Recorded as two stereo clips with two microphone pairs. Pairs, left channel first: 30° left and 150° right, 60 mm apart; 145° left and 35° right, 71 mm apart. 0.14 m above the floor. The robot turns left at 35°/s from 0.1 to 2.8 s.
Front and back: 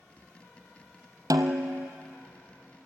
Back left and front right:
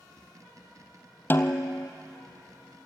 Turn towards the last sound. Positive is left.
turn(degrees=150)